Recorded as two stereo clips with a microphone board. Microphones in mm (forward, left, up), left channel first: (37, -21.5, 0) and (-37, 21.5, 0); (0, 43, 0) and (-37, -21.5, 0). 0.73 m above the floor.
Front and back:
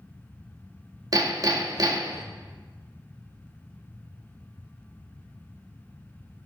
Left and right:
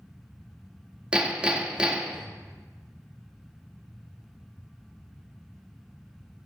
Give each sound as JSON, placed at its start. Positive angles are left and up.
{"t": 1.1, "sound": "hammering", "azimuth_deg": 170, "distance_m": 1.0}